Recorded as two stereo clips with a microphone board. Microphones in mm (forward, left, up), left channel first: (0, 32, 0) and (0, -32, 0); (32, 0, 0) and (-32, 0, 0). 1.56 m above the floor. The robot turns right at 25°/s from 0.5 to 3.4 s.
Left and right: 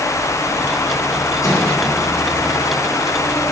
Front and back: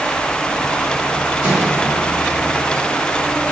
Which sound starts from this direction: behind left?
A microwave, at 1.4 s.